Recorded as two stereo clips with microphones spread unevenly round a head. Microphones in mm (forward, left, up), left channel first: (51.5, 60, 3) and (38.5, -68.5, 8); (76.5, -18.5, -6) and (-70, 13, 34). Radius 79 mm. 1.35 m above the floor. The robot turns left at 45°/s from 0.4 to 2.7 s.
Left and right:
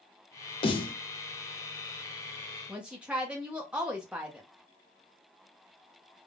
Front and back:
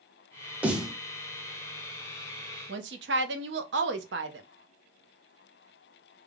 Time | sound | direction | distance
0.6 | a snare drum | 75° left | 0.6 m
2.7 | a woman speaking | straight behind | 0.7 m